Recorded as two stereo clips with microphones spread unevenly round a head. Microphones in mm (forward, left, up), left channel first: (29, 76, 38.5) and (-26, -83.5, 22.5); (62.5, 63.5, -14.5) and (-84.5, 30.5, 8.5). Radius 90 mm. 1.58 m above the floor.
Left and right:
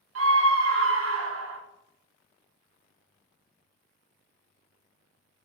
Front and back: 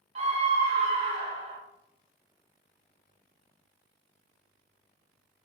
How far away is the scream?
About 0.7 m.